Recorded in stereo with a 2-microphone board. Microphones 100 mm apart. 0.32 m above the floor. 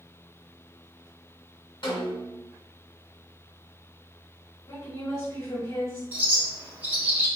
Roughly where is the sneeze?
No sneeze in this recording.